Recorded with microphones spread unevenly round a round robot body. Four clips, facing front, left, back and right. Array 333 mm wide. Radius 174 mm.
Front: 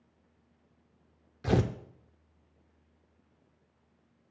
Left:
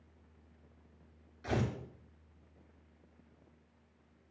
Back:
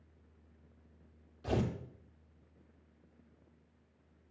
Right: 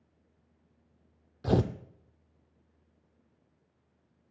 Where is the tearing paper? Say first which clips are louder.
Right 7 dB, front 6 dB; 50° right, 0.6 m.